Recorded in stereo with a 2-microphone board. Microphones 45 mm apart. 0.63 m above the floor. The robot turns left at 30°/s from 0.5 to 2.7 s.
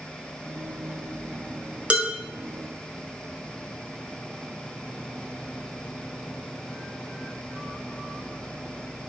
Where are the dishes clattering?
30° right (ahead or behind), 2 m; by 2.1 s 25° right (ahead or behind), 2 m.